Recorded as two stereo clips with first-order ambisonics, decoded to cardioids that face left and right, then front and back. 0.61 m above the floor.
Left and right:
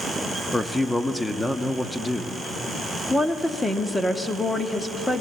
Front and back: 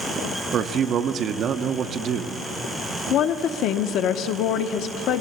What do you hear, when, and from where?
0.5 s a man speaking: 175° left, 0.6 m
3.1 s a woman speaking: 5° left, 0.7 m